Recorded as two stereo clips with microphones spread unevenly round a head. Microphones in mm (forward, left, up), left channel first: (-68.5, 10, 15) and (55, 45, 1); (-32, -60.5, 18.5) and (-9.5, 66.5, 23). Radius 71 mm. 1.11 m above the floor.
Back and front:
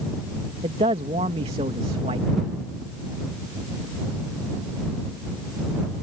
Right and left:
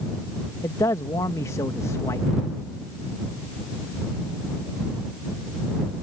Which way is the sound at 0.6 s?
35° right.